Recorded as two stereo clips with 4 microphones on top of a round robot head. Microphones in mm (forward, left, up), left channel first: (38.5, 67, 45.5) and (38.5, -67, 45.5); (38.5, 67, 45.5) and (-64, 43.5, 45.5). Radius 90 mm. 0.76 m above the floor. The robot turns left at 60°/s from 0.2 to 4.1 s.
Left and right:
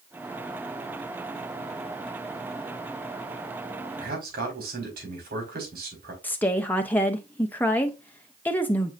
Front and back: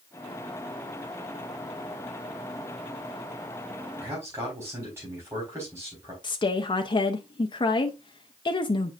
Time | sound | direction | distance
4.0 | a man speaking | 90° right | 4.5 m
6.2 | a woman speaking | 20° left | 0.8 m